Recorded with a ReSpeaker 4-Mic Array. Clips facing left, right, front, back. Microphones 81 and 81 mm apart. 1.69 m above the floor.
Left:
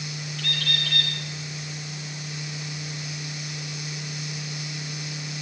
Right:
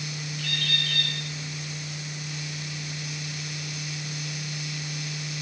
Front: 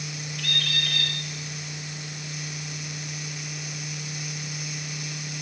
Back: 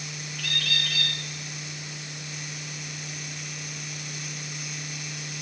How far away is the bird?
About 3.5 m.